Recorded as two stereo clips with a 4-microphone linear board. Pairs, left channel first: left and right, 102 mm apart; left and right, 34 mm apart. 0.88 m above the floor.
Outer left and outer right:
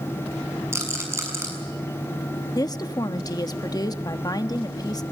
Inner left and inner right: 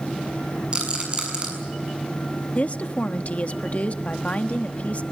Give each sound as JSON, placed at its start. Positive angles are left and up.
{"t": 0.7, "sound": "a rattle", "side_deg": -25, "distance_m": 6.5}
{"t": 2.5, "sound": "a woman speaking", "side_deg": 40, "distance_m": 1.1}